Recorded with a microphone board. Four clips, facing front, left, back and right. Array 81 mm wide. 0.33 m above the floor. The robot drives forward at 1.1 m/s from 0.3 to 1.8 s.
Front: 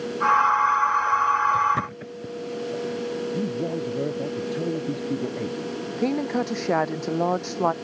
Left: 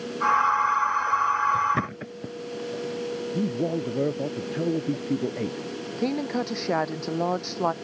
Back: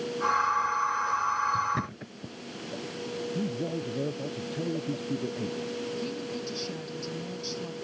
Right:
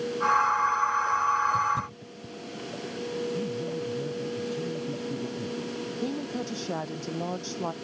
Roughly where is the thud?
Left.